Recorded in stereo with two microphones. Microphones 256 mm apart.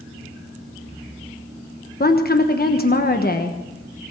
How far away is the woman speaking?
About 1.1 m.